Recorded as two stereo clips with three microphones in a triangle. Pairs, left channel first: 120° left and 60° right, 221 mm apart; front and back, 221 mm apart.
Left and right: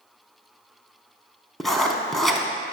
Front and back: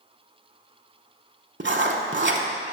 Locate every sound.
1.6 s writing: 150° right, 0.7 m